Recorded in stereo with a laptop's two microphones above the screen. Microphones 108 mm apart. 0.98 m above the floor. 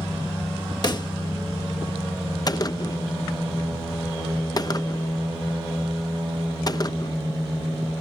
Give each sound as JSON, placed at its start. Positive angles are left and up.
{"t": 0.8, "sound": "a pop", "side_deg": 40}
{"t": 2.5, "sound": "a gunshot", "side_deg": 35}